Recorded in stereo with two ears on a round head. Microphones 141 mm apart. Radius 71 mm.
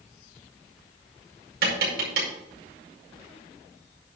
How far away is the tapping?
About 5 m.